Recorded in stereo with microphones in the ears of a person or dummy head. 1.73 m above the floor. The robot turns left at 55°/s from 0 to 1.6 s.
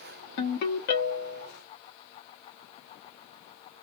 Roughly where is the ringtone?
Left.